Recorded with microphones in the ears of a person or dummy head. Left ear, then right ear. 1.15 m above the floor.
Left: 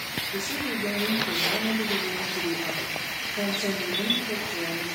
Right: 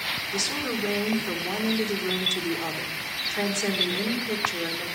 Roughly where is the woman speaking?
Right.